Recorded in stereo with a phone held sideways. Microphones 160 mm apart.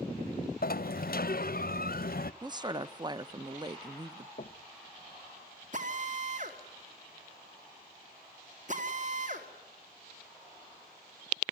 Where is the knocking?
55° left (ahead or behind), 0.6 m.